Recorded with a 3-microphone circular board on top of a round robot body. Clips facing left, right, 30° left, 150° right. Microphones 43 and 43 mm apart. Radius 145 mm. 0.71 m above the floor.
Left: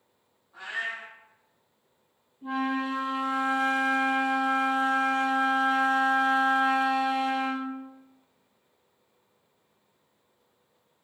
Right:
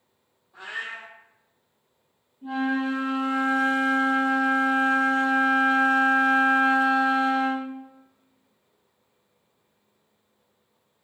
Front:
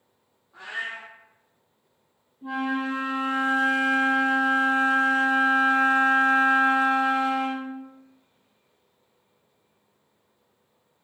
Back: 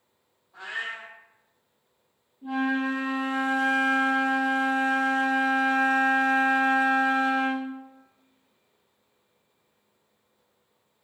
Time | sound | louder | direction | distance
0.5 | a cat meowing | left 1 dB, front 1 dB | 30° left | 0.7 m
2.4 | a flute | right 3 dB, back 1 dB | 25° left | 0.9 m